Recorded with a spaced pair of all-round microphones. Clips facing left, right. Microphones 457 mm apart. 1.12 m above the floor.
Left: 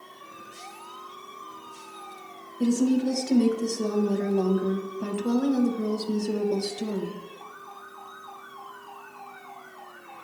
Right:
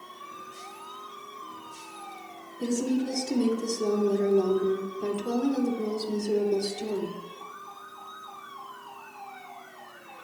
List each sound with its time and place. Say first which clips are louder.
2.6 s a woman speaking: left 5 dB; 70° left (ahead or behind), 0.8 m